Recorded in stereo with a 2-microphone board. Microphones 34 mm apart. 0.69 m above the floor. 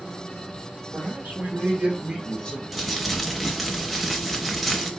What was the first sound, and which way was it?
A man speaking, 65° right (ahead or behind).